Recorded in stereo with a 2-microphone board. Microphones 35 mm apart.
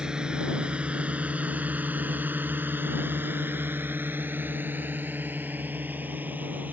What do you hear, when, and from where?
0.0 s a drone: 25° right (ahead or behind); by 6.7 s 55° right (ahead or behind)